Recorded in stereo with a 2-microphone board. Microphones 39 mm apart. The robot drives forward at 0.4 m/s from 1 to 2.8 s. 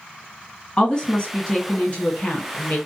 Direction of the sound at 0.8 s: 30° left (ahead or behind).